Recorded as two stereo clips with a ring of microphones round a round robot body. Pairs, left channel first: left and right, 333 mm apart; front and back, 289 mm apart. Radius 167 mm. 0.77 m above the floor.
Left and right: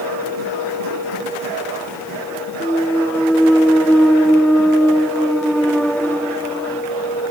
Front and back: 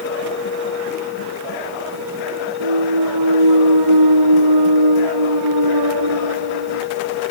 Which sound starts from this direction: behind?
A clunk, at 2.6 s.